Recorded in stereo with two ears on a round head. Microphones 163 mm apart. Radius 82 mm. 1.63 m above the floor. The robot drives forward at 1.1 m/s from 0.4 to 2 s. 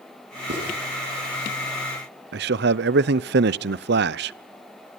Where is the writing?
65° right (ahead or behind), 8 m; by 0.7 s 60° right (ahead or behind), 8 m.